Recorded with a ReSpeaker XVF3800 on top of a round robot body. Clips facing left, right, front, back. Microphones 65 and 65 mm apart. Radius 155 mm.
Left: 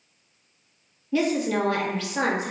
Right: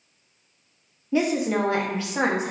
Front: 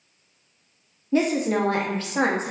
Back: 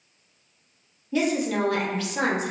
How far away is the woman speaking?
About 0.8 m.